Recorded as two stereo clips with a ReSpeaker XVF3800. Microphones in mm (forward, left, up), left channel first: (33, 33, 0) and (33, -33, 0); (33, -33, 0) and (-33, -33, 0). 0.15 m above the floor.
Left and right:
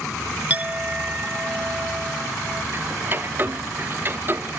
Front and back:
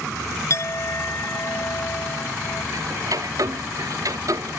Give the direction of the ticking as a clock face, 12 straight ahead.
5 o'clock.